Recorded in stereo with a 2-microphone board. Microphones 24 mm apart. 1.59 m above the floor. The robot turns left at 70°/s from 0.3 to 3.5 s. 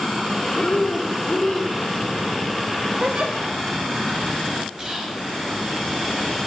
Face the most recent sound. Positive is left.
turn(degrees=-20)  # may be behind; listen again after turning